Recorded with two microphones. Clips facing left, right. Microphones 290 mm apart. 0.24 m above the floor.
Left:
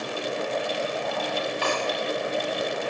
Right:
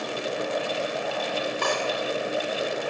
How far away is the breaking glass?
About 7 m.